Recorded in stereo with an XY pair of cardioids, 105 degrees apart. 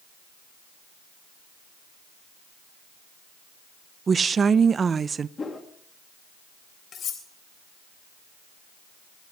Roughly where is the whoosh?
Ahead left.